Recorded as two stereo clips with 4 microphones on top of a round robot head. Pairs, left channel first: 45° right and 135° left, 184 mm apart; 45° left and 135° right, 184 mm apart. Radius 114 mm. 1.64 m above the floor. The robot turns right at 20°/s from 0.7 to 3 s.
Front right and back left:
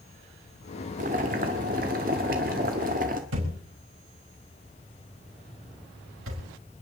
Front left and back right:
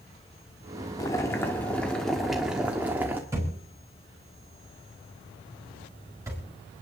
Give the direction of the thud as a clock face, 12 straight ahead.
7 o'clock.